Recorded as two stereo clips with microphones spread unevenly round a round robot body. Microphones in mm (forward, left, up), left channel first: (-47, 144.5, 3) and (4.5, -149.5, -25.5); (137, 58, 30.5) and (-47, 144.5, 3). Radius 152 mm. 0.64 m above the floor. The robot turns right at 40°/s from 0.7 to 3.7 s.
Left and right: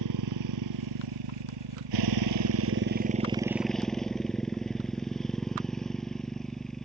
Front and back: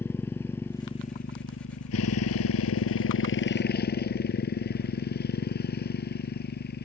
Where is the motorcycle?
110° right; by 6.9 s 10° left.